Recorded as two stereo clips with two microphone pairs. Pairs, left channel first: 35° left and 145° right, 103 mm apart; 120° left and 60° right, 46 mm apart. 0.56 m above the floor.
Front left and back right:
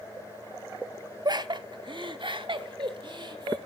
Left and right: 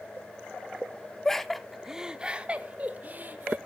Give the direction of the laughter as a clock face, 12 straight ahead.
6 o'clock.